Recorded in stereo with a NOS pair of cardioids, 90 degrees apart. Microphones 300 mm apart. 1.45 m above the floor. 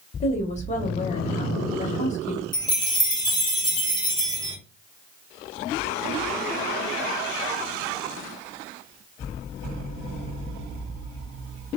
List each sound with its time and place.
0.2 s a woman speaking: 25° left, 1.6 m
2.5 s a chime: 15° left, 1.4 m